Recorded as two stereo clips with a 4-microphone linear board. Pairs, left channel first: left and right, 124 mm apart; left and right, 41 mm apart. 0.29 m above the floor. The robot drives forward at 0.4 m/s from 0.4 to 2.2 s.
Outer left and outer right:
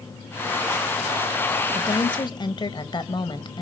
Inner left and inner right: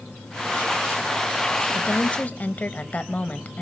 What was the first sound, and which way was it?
A woman speaking, 40° left (ahead or behind).